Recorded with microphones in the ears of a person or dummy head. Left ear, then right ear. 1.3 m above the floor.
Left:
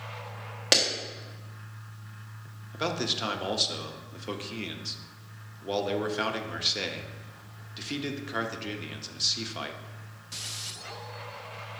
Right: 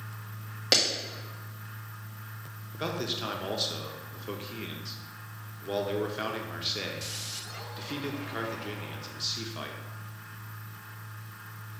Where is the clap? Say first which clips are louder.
Left 1 dB; 10° left (ahead or behind), 1.3 m.